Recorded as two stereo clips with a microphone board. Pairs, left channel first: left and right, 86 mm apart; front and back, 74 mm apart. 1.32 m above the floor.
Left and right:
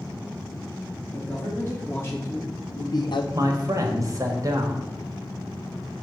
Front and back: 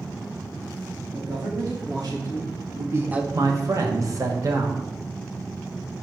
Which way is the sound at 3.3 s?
140° right.